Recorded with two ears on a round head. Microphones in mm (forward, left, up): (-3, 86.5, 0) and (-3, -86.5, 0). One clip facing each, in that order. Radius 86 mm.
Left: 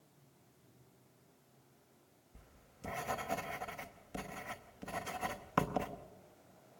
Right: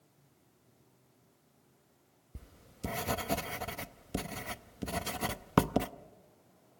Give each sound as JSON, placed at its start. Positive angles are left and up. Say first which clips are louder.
{"t": 2.4, "sound": "writing", "louder": "right 11 dB", "side_deg": -50, "distance_m": 0.8}